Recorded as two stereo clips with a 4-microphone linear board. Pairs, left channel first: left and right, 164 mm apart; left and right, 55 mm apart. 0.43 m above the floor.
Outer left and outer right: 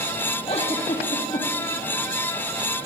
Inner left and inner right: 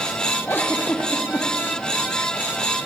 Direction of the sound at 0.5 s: 40° left (ahead or behind).